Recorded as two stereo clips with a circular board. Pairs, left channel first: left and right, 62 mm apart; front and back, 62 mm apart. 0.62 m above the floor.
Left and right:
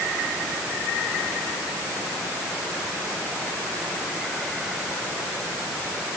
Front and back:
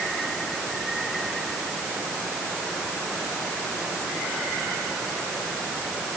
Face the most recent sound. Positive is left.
No sound to turn to.